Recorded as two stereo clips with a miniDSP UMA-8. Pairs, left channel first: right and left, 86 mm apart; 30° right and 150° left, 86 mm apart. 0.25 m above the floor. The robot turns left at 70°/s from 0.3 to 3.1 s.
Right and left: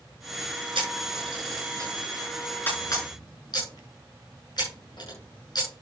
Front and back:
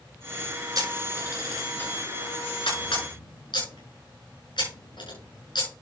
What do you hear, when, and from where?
0.8 s a camera shutter: 110° left, 7 m; by 5.7 s 55° right, 7 m